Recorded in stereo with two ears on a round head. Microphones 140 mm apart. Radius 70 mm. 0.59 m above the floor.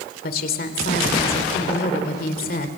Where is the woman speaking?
60° left (ahead or behind), 2 m.